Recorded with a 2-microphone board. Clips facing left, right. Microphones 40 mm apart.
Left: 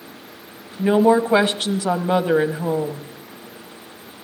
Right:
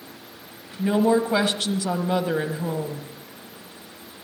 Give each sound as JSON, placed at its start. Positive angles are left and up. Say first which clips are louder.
{"t": 0.8, "sound": "a woman speaking", "louder": "left 5 dB", "side_deg": 30, "distance_m": 1.1}